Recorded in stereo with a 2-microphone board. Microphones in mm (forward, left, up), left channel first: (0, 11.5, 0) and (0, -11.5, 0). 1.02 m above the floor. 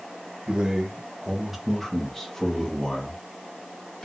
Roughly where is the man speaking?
Right.